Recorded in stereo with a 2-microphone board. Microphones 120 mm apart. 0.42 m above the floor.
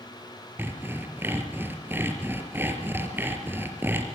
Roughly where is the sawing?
Centre.